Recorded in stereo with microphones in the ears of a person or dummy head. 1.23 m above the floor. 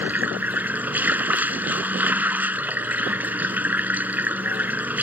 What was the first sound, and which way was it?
Running water, 5° right (ahead or behind).